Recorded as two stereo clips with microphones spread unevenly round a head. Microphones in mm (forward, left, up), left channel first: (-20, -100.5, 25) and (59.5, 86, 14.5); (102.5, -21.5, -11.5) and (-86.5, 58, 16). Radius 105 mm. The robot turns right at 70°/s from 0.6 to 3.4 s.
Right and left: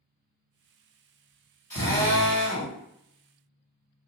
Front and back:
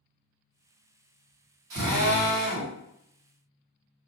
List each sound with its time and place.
1.7 s a drill: 170° left, 1.9 m; by 2.8 s 120° right, 1.9 m